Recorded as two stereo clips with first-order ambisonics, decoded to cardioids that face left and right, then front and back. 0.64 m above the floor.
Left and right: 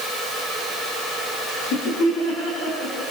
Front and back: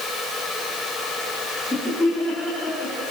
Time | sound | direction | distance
1.6 | laughter | 75° left | 4.5 m